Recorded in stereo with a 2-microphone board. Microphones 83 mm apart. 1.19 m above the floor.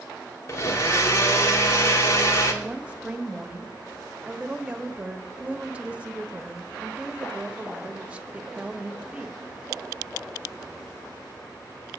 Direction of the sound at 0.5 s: 40° left (ahead or behind).